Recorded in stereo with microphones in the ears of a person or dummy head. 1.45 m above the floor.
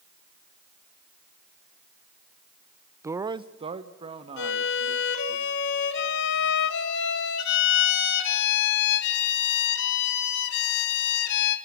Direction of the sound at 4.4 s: 70° left (ahead or behind).